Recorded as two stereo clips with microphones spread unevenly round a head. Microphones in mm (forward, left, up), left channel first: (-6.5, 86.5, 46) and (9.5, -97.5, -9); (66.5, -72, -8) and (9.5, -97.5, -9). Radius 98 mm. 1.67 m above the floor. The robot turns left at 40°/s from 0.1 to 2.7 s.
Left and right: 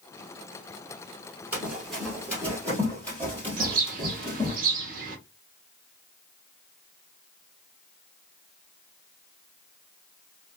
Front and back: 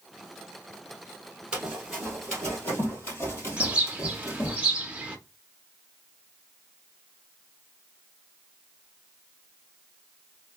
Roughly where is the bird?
Behind right.